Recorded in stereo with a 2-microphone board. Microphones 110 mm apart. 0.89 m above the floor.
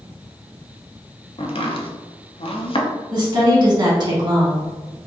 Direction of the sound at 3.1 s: 40° right (ahead or behind).